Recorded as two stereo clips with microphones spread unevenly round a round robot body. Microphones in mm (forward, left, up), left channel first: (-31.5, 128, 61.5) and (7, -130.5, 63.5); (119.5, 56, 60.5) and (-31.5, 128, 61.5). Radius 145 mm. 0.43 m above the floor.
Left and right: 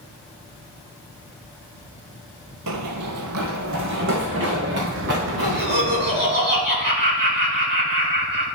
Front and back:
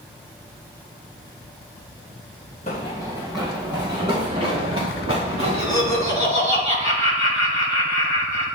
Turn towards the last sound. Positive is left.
turn(degrees=-130)